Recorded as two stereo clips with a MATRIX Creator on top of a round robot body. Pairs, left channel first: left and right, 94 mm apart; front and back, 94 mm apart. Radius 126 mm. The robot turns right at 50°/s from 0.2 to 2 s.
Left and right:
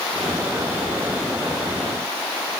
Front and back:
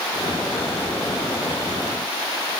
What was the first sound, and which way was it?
Only background noise.